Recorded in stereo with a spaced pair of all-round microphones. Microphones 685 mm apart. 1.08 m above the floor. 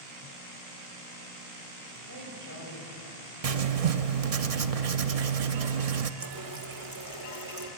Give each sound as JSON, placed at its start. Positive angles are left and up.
{"t": 2.1, "sound": "a woman speaking", "side_deg": -25, "distance_m": 6.0}
{"t": 3.4, "sound": "writing", "side_deg": -60, "distance_m": 0.8}
{"t": 6.2, "sound": "a running tap", "side_deg": -30, "distance_m": 1.3}